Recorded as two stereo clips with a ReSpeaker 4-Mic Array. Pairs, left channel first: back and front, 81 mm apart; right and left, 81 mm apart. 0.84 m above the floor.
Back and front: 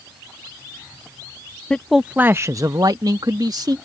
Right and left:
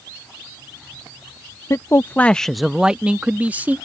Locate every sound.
1.7 s a man speaking: 105° right; by 3.8 s 25° left